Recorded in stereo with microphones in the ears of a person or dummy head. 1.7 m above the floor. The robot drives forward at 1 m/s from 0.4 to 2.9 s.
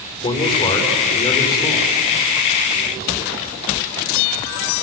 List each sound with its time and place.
0.2 s a man speaking: 35° left (ahead or behind), 4.5 m; by 1.9 s 30° left (ahead or behind), 6 m